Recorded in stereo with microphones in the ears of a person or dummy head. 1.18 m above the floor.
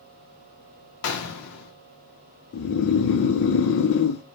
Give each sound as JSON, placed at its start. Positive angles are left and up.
{"t": 1.0, "sound": "a gunshot", "side_deg": 70, "distance_m": 0.8}
{"t": 2.5, "sound": "snoring", "side_deg": 80, "distance_m": 0.6}